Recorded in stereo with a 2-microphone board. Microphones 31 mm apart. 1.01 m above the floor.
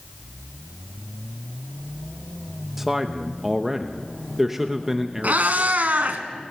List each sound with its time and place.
2.8 s a man speaking: 10° right (ahead or behind), 1.0 m
5.2 s a cat meowing: 65° right (ahead or behind), 1.8 m